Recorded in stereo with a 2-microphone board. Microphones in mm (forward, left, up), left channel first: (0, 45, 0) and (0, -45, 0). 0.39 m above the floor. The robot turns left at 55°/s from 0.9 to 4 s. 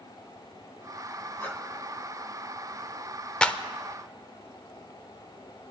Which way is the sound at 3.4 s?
10° left (ahead or behind).